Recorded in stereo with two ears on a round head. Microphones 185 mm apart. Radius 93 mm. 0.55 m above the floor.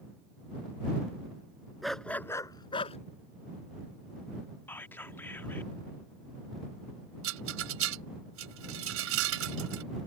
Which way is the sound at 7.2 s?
70° right (ahead or behind).